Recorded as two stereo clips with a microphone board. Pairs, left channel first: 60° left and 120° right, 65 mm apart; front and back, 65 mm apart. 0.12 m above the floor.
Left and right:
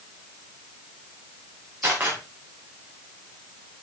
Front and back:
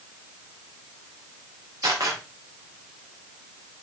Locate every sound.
1.8 s a camera shutter: straight behind, 5.5 m